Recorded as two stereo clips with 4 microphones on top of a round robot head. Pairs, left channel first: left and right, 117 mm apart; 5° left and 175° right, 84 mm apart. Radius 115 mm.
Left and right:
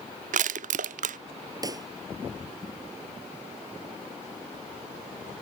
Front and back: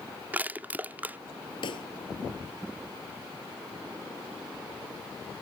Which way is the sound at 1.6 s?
30° right.